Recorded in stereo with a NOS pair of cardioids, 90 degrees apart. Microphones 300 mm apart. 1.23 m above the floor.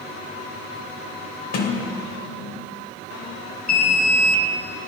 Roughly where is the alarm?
Ahead left.